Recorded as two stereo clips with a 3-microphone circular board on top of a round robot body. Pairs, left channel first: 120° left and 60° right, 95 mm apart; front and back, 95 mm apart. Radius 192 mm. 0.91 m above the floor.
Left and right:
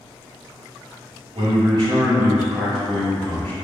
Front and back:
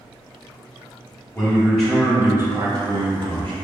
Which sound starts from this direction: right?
A man speaking, at 1.4 s.